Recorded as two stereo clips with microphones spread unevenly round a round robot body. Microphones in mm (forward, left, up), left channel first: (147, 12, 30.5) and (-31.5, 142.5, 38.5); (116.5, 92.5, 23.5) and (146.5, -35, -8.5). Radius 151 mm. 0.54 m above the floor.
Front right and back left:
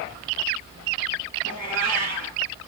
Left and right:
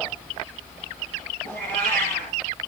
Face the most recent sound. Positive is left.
turn(degrees=-90)